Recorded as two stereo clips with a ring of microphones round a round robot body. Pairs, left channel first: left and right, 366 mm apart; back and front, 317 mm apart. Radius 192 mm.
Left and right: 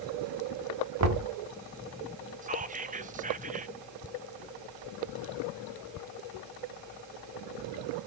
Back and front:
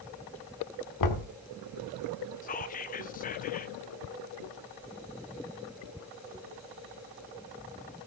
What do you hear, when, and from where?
1.0 s knocking: 140° right, 1.3 m
2.4 s whispering: 140° right, 0.7 m